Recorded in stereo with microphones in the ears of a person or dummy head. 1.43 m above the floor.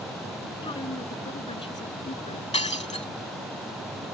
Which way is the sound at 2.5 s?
30° left (ahead or behind).